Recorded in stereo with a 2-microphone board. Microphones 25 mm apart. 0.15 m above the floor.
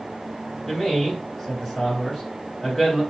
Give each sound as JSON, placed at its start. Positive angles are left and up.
{"t": 0.7, "sound": "a man speaking", "side_deg": -5, "distance_m": 2.0}